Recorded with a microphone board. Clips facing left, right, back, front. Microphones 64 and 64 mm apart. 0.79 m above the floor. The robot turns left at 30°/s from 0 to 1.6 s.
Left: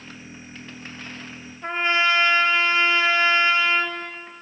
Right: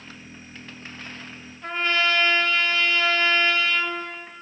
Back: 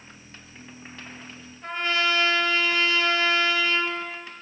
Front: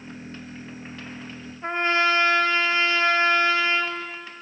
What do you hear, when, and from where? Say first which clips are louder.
1.6 s a trumpet: left 2 dB, front 4 dB; 30° left, 0.6 m